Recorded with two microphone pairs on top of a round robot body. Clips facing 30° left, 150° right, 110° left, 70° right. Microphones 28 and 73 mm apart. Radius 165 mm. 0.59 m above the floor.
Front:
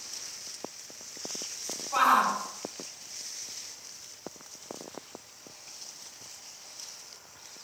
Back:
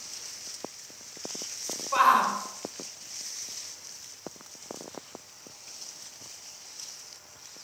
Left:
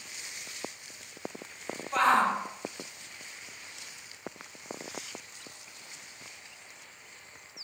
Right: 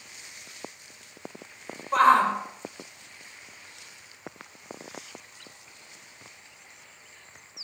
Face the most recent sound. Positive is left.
turn(degrees=-105)